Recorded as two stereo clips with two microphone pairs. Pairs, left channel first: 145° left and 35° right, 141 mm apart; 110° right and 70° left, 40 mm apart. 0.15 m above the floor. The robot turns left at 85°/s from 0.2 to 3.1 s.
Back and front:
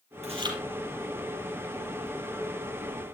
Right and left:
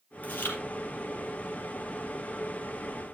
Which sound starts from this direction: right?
Chewing, at 0.2 s.